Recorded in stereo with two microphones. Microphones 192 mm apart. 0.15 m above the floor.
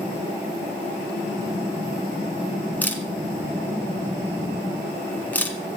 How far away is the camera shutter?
About 1.8 m.